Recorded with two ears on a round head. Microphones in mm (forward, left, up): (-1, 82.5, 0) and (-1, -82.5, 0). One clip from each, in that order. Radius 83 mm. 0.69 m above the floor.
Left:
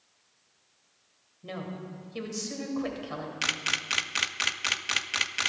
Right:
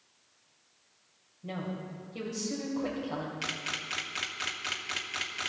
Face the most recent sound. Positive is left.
turn(degrees=40)  # may be behind; listen again after turning